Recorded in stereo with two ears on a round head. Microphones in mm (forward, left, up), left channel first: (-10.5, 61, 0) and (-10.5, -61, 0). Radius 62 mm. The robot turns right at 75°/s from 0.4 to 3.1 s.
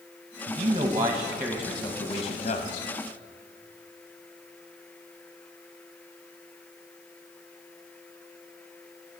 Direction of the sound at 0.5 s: 65° right.